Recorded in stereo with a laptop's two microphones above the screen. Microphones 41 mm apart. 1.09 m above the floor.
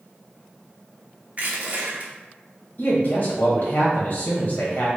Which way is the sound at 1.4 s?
40° right (ahead or behind).